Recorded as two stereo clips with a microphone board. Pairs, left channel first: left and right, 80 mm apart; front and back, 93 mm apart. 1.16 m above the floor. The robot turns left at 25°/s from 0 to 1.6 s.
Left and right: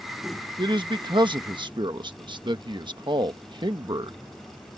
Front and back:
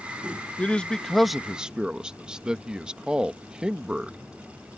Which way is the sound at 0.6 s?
75° right.